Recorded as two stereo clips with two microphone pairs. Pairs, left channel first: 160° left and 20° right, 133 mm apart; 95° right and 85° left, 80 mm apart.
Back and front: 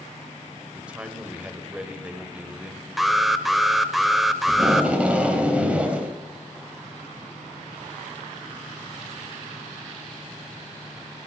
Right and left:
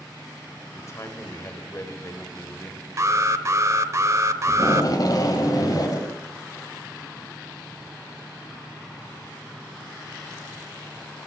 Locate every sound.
0.7 s a man speaking: 95° right, 1.6 m
3.0 s an alarm: 70° left, 0.7 m
4.5 s tape being pulled: 95° right, 1.9 m